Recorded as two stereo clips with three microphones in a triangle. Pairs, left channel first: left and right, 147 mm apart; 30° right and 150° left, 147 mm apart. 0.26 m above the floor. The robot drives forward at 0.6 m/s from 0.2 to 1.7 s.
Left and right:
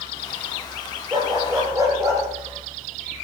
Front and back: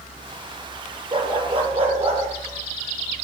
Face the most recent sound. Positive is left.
turn(degrees=-160)